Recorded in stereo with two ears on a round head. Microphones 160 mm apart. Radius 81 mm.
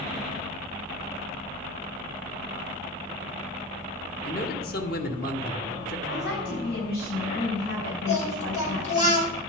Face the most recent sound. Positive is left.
turn(degrees=40)  # may be behind; listen again after turning